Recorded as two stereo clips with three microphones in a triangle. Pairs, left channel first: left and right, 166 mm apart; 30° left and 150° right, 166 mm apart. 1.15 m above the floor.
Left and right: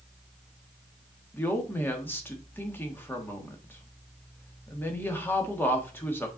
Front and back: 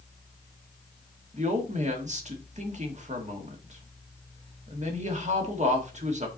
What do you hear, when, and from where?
1.3 s a woman speaking: 170° left, 1.7 m